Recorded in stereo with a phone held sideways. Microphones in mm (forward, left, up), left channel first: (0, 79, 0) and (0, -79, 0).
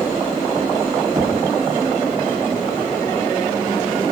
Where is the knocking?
30° right (ahead or behind), 2 m.